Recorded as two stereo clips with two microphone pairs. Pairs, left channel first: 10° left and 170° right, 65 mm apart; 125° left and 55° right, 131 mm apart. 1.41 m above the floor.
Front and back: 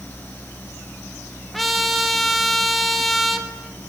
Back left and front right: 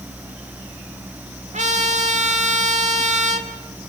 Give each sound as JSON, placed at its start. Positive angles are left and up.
{"t": 1.5, "sound": "a trumpet", "azimuth_deg": -80, "distance_m": 2.5}